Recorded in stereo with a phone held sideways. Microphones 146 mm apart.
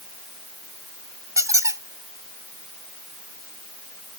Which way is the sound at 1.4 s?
25° right (ahead or behind).